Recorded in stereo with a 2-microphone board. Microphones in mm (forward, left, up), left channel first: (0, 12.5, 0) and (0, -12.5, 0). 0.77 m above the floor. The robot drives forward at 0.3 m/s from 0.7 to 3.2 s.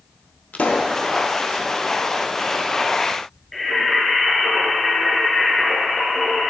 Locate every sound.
0.5 s a pop: 70° left (ahead or behind), 0.8 m; by 1.0 s 75° left (ahead or behind), 0.8 m
3.5 s singing: 20° left (ahead or behind), 2.5 m